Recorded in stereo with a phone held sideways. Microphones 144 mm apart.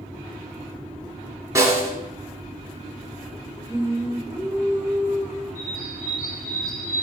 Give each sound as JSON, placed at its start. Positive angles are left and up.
{"t": 1.6, "sound": "a snare drum", "side_deg": -25, "distance_m": 1.7}
{"t": 3.7, "sound": "singing", "side_deg": 15, "distance_m": 3.5}
{"t": 5.5, "sound": "a bird", "side_deg": 75, "distance_m": 1.7}